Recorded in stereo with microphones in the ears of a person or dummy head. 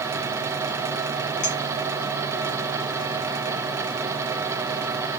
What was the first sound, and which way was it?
A clink, 30° left (ahead or behind).